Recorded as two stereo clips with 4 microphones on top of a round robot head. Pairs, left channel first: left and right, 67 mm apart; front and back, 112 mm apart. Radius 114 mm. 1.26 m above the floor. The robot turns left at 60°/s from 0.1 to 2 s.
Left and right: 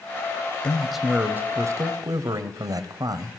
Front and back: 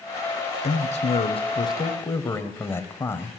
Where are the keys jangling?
I don't hear keys jangling.